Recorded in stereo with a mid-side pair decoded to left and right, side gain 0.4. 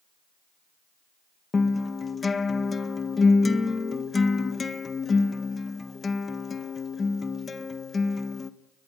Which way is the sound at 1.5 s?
35° left.